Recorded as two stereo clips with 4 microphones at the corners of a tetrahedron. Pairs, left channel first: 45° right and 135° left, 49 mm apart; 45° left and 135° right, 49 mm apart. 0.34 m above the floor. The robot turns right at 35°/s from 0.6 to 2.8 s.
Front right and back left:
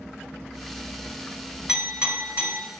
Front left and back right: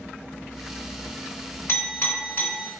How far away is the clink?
About 1.8 m.